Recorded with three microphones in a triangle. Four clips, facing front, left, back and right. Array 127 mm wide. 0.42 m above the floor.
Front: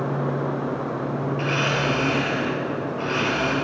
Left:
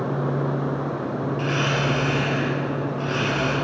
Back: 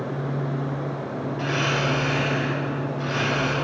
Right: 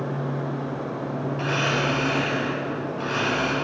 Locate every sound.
1.4 s a blender: 40° right, 4.5 m